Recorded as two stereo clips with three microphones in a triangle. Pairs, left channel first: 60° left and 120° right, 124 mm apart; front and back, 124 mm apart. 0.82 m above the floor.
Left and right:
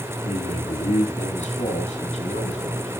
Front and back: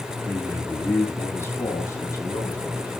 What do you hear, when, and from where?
0.2 s a man speaking: 75° left, 5.5 m; by 2.9 s 60° left, 6.5 m